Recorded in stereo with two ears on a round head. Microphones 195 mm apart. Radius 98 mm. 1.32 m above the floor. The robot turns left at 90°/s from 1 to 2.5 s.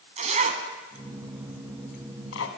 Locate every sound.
0.2 s a zipper: 35° right (ahead or behind), 2.5 m; by 2.5 s 70° left (ahead or behind), 2.5 m